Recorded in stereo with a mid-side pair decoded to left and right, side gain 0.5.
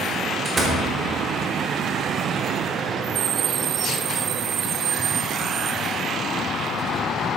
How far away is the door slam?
About 3.5 m.